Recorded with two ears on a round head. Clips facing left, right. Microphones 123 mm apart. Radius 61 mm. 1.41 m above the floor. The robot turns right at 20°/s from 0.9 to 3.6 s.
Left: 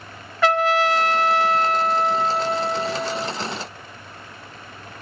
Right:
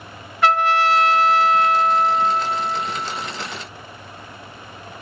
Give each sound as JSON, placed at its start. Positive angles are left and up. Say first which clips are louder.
{"t": 0.4, "sound": "a trumpet", "louder": "right 1 dB", "azimuth_deg": 75, "distance_m": 0.9}